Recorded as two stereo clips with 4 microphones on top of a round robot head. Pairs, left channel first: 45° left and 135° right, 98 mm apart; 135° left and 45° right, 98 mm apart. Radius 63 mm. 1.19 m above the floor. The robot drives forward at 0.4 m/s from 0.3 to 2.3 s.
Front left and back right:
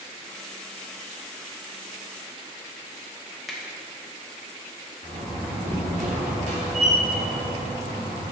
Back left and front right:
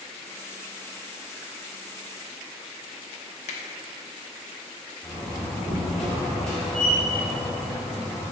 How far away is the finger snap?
About 0.8 m.